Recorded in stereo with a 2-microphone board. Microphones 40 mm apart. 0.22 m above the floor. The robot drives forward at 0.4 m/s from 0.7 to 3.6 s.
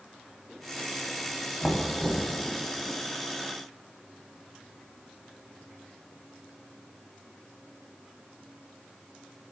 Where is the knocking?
10° right (ahead or behind), 0.9 m.